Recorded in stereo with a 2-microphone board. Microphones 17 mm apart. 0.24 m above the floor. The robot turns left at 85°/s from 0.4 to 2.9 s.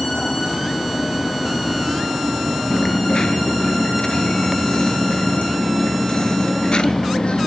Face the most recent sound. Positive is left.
turn(degrees=65)  # may be behind; listen again after turning